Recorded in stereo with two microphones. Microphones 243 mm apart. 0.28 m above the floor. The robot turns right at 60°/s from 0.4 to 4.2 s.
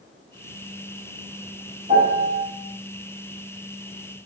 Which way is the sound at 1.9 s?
130° right.